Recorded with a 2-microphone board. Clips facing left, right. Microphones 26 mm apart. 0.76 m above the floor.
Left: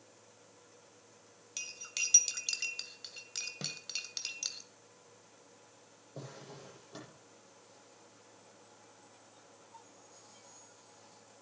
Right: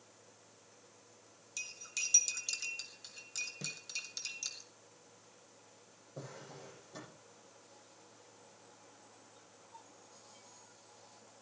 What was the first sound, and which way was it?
Cutlery clinking, 35° left (ahead or behind).